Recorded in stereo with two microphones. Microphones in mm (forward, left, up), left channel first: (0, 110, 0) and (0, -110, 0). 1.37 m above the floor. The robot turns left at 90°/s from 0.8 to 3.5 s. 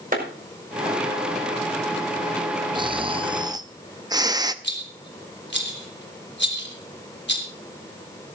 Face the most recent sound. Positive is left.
turn(degrees=60)  # may be behind; listen again after turning